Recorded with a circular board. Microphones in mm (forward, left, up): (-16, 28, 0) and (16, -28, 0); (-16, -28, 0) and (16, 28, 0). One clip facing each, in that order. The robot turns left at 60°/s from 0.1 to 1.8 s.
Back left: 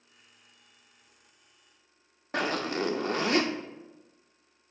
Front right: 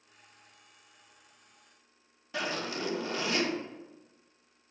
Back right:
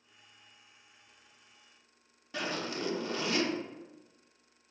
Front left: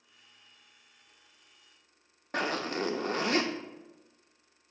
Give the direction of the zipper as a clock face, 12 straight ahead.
9 o'clock.